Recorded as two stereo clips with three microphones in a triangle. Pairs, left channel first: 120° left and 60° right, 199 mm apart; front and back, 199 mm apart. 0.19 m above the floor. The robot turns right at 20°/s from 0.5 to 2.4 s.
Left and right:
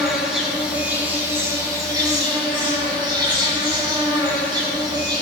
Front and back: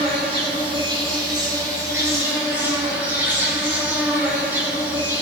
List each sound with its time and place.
0.0 s an insect: 145° right, 1.4 m; by 5.2 s 105° right, 1.4 m